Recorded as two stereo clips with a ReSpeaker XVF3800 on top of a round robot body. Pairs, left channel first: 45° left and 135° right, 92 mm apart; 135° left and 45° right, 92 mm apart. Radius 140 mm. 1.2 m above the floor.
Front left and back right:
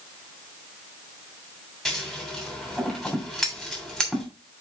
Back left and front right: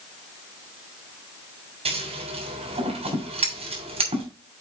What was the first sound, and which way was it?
Scissors, 40° right.